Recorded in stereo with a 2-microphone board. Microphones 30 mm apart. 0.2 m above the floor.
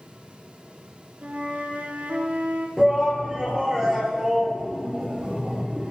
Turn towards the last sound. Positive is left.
turn(degrees=-20)  # may be behind; listen again after turning